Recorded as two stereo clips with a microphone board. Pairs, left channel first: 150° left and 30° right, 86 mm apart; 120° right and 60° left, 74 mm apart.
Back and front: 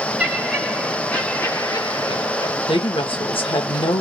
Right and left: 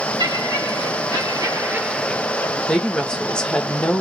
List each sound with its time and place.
0.2 s laughter: 55° left, 2 m; by 2.6 s 175° right, 1.1 m
2.7 s a woman speaking: 160° left, 1.2 m